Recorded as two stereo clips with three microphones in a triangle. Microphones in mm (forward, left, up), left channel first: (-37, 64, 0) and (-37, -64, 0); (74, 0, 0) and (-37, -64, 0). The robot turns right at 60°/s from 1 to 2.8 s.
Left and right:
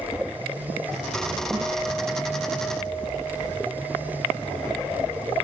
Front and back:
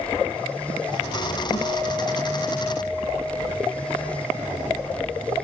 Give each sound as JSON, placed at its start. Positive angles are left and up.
{"t": 1.5, "sound": "a guitar", "azimuth_deg": 10, "distance_m": 3.5}